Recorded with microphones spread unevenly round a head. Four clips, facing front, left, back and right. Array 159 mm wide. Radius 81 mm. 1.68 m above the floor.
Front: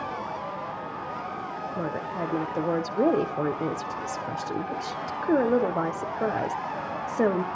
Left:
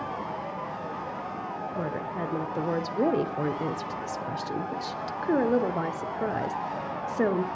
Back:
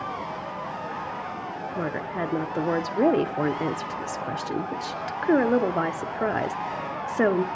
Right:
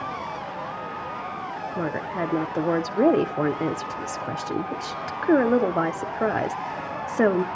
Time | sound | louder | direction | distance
1.8 | a woman speaking | right 5 dB, back 2 dB | 105° right | 0.6 m